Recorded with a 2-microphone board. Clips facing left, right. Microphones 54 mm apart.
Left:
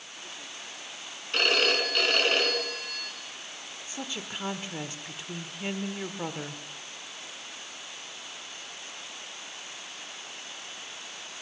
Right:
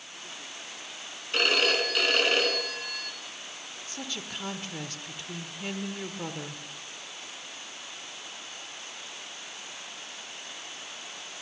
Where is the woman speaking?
15° left (ahead or behind), 1.1 m.